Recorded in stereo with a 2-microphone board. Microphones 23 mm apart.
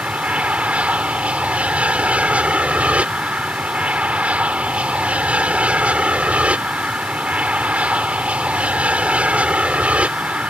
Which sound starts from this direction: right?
An aircraft, at 0.0 s.